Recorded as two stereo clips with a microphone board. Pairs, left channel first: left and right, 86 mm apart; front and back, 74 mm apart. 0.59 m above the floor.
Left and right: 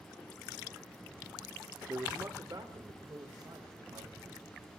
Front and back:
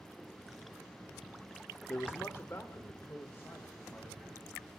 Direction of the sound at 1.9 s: 45° right.